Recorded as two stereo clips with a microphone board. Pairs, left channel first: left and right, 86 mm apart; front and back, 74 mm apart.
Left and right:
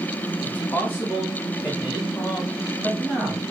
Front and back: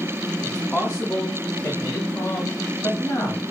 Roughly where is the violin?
No violin in this recording.